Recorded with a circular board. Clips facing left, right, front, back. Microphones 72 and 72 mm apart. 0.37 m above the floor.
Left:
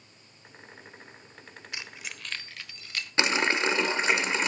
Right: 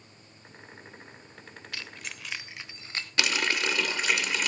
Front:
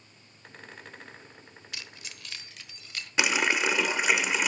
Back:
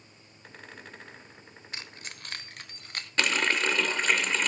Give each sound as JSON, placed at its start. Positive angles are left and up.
{"t": 1.7, "sound": "keys jangling", "azimuth_deg": 150, "distance_m": 0.9}
{"t": 3.2, "sound": "a running tap", "azimuth_deg": 70, "distance_m": 0.5}